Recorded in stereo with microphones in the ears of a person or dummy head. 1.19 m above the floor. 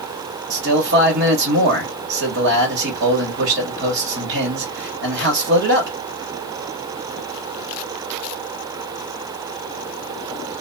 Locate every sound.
0.5 s a man speaking: 50° right (ahead or behind), 1.4 m